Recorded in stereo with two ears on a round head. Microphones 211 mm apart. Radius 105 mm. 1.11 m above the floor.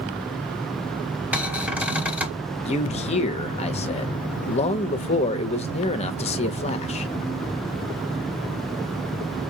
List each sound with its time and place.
1.3 s a cupboard door: 10° right (ahead or behind), 1.3 m
2.6 s a man speaking: 30° left (ahead or behind), 0.7 m